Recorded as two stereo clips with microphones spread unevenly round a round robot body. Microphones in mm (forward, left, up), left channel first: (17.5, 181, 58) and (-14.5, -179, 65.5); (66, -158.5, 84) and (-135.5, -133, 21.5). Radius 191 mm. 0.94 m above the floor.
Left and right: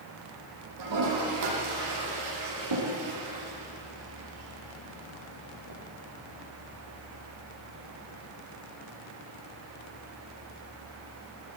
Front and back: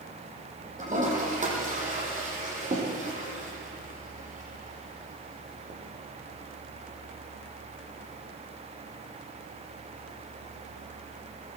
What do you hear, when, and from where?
0.8 s a toilet flushing: 135° right, 9.5 m